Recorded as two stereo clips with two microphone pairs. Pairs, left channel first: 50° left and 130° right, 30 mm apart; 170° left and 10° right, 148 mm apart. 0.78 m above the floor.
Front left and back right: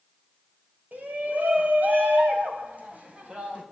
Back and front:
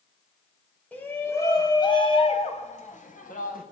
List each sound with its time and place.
0.9 s a shout: 110° right, 4 m; by 3.6 s 175° right, 4.5 m